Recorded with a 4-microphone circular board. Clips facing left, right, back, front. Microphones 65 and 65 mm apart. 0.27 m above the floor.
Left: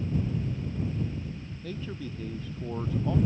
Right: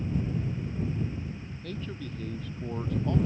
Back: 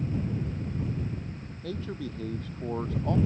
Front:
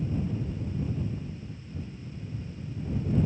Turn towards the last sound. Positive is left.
turn(degrees=175)